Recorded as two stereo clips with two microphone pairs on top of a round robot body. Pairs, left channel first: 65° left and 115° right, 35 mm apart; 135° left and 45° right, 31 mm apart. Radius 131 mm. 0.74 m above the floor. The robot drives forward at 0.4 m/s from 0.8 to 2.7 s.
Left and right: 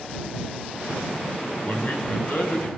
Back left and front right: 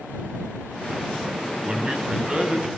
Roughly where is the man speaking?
Ahead.